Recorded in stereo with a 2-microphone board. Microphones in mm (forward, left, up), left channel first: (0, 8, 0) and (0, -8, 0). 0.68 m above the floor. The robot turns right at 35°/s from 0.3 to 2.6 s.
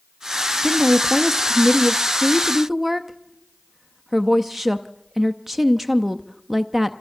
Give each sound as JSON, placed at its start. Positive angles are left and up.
{"t": 0.6, "sound": "a woman speaking", "side_deg": -15, "distance_m": 0.6}